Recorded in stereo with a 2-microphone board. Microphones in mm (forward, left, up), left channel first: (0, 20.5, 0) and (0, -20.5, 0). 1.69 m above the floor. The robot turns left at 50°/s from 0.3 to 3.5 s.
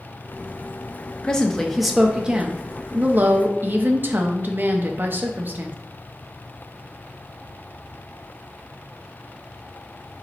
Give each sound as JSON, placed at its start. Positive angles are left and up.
{"t": 1.2, "sound": "a woman speaking", "azimuth_deg": 30, "distance_m": 0.6}